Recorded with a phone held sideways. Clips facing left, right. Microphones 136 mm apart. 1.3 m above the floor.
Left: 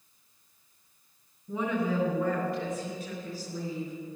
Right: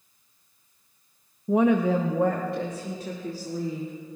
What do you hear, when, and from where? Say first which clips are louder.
1.5 s a woman speaking: right 9 dB; 80° right, 0.7 m; by 3.9 s 65° right (ahead or behind), 2.5 m